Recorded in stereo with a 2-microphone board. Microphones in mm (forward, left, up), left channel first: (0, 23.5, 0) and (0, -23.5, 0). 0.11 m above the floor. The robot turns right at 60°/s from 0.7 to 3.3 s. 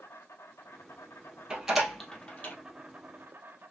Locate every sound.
0.0 s an insect: 80° left, 0.8 m; by 3.7 s 125° right, 0.8 m
1.5 s a door slam: 15° right (ahead or behind), 2 m; by 2.5 s 40° left (ahead or behind), 2 m